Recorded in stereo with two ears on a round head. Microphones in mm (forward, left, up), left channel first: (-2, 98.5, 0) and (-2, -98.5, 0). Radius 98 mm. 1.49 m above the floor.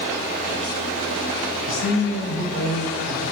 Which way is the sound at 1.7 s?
85° left.